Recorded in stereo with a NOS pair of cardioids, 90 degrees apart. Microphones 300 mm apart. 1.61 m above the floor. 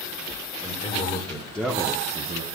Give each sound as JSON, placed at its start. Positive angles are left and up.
{"t": 0.6, "sound": "a man speaking", "azimuth_deg": 20, "distance_m": 2.0}